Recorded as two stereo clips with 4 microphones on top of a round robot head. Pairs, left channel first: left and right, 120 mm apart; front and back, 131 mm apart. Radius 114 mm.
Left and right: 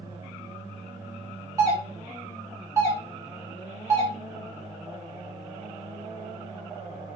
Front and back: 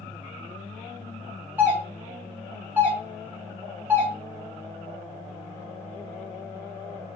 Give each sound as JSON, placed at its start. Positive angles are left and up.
{"t": 1.6, "sound": "a doorbell", "azimuth_deg": -120, "distance_m": 1.3}